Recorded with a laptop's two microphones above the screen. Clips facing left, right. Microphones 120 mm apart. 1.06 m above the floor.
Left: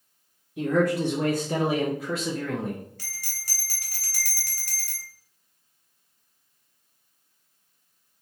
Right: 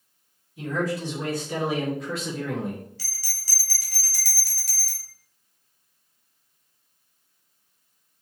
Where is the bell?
50° left (ahead or behind), 0.9 m.